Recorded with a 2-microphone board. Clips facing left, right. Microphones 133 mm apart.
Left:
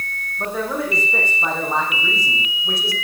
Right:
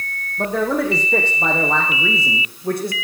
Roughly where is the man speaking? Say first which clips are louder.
Right 4 dB; right.